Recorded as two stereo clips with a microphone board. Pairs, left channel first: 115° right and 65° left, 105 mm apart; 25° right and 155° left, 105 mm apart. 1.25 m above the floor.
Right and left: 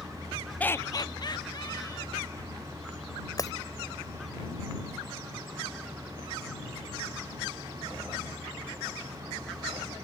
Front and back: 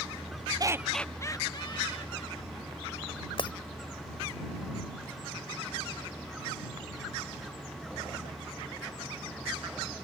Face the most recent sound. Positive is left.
turn(degrees=-60)